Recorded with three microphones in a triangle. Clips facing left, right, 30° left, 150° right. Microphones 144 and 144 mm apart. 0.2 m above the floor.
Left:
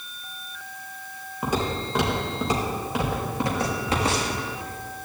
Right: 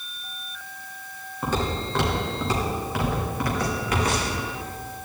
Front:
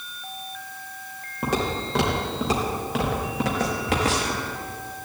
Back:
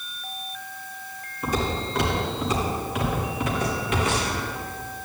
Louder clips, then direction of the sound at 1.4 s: Even, front 1 dB; 10° left.